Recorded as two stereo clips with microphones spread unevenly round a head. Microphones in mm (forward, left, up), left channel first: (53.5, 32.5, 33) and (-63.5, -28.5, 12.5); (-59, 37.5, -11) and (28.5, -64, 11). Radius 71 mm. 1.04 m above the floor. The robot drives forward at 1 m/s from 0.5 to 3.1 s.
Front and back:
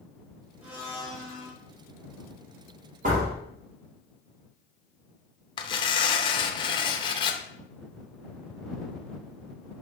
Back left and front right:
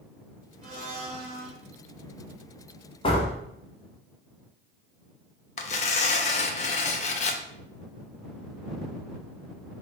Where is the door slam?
Straight behind, 2 m.